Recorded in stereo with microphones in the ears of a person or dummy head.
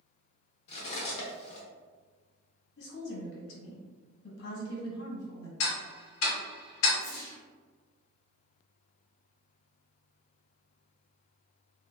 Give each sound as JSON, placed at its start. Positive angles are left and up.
{"t": 0.7, "sound": "cutlery clinking", "side_deg": 40, "distance_m": 0.6}
{"t": 2.8, "sound": "a woman speaking", "side_deg": 65, "distance_m": 1.1}
{"t": 5.6, "sound": "ticking", "side_deg": 80, "distance_m": 0.9}
{"t": 7.0, "sound": "a whoosh", "side_deg": 15, "distance_m": 0.7}